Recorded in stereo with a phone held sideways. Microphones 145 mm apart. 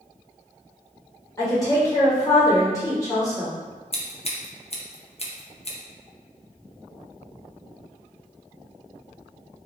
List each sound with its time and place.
1.4 s a woman speaking: 20° left (ahead or behind), 1.4 m
3.9 s scissors: 45° left (ahead or behind), 0.6 m